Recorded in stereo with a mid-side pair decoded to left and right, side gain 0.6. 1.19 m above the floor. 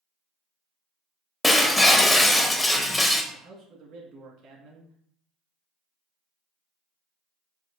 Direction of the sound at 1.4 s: 15° left.